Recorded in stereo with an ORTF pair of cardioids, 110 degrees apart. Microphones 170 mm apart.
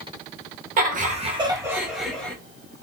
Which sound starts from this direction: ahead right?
Laughter, at 0.8 s.